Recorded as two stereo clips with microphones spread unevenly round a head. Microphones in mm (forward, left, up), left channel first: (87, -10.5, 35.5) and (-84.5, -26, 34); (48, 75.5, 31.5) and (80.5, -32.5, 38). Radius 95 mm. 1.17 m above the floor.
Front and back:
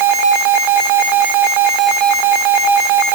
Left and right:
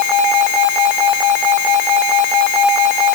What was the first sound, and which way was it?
Only background noise.